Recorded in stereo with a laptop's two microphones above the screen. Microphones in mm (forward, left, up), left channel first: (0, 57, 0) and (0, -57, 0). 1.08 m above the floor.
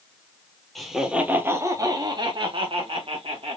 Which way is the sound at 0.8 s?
Centre (ahead or behind).